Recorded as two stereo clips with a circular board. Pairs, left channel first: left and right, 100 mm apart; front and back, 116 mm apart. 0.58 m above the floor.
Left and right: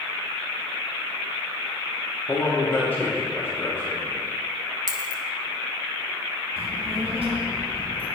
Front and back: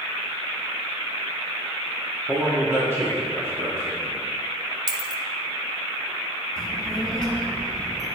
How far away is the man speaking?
About 1.1 m.